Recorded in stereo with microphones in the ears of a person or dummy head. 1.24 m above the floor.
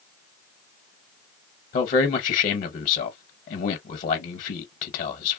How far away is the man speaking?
About 0.9 m.